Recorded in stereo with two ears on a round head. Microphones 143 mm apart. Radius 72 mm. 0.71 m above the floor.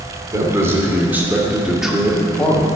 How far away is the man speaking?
About 2.5 m.